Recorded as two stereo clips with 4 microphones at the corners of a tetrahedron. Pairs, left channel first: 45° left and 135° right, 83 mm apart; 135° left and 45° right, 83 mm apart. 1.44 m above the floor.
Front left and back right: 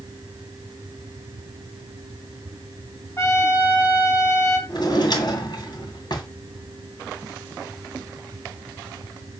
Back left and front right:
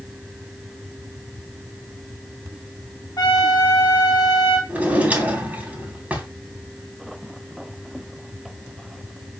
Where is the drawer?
25° left, 2.5 m.